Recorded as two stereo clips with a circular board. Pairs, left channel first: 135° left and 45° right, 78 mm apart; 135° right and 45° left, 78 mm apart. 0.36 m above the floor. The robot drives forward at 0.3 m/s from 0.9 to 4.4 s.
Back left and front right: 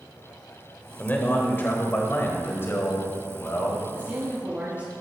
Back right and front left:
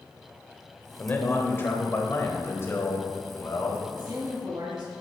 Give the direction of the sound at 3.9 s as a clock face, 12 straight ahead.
11 o'clock.